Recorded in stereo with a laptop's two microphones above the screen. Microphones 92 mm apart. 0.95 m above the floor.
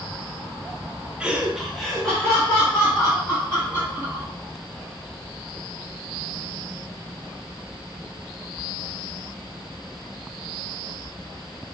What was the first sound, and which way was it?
Laughter, 10° right (ahead or behind).